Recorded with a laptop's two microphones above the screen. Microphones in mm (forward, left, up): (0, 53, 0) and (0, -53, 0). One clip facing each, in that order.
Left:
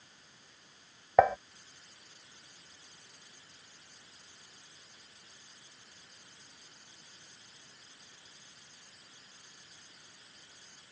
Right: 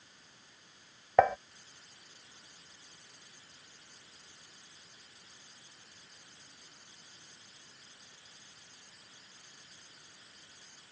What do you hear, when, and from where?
1.2 s dishes clattering: 5° left (ahead or behind)